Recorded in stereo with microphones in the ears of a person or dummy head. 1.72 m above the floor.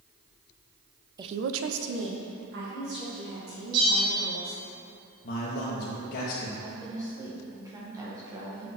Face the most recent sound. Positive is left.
turn(degrees=-20)  # may be behind; listen again after turning